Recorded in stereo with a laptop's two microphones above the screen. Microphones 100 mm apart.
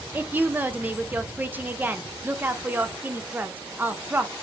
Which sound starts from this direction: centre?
A woman speaking, at 0.1 s.